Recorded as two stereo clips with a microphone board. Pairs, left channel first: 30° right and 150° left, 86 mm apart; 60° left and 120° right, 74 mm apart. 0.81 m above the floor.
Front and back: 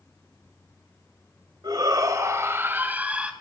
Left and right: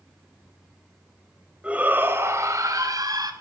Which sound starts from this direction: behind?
A shout, at 1.6 s.